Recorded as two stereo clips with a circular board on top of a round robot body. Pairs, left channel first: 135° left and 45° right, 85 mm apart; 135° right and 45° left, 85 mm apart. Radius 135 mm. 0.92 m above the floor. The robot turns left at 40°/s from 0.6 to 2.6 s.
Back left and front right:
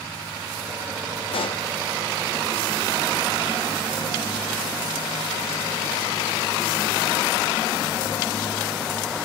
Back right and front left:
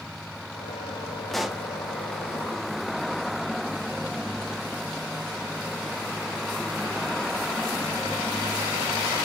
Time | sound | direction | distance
1.3 | a pop | 140° left | 0.9 m